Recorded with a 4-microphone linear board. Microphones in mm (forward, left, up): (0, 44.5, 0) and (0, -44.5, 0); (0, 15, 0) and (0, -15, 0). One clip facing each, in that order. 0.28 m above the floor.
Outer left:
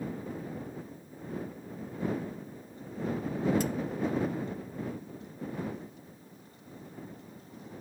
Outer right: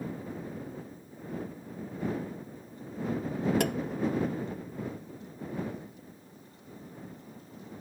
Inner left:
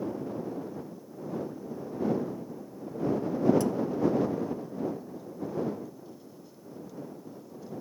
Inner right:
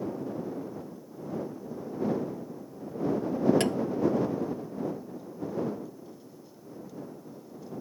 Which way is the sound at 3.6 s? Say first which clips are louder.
Outer right 3 dB, inner right 1 dB; 75° right (ahead or behind).